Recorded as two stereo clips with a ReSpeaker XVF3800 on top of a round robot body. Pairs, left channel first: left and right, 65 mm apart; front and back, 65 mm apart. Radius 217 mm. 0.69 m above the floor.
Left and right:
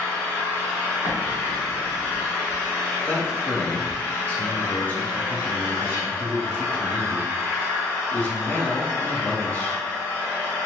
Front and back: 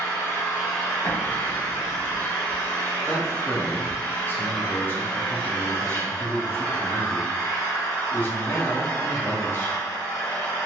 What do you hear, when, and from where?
0.0 s an engine running: 30° left, 1.6 m
1.0 s an explosion: 40° left, 1.8 m
3.1 s a man speaking: 35° left, 1.1 m